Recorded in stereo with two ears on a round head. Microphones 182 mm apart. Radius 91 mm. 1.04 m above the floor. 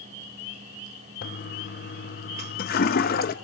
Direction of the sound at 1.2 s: 45° left (ahead or behind).